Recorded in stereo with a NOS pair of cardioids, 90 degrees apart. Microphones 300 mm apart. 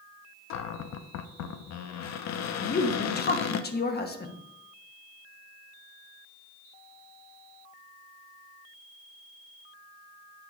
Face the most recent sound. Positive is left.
turn(degrees=35)